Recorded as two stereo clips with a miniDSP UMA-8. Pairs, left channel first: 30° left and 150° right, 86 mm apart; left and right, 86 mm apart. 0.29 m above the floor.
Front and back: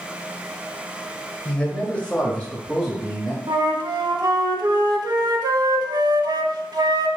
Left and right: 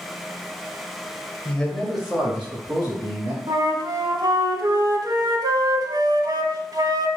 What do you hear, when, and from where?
1.4 s a man speaking: 75° left, 1.2 m; by 3.4 s 55° right, 1.7 m
3.5 s a flute: 120° right, 0.6 m